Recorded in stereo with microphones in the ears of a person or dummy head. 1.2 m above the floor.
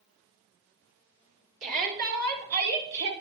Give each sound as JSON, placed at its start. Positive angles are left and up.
{"t": 1.6, "sound": "a shout", "side_deg": -40, "distance_m": 3.0}